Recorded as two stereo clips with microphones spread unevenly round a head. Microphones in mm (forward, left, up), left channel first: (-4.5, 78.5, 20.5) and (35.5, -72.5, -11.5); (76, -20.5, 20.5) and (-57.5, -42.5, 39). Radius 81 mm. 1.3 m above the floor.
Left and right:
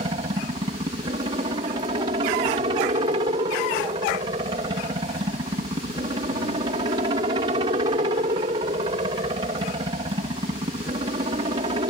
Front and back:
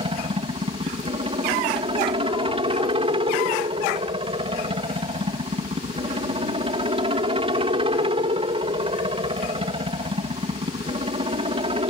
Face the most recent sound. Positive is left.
turn(degrees=-125)